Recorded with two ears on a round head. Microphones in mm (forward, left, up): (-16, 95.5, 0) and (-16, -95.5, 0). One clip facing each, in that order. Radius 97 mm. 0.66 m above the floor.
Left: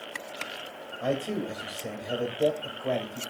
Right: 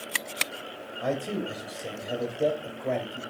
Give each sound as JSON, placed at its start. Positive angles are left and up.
{"t": 1.0, "sound": "a man speaking", "side_deg": 0, "distance_m": 3.0}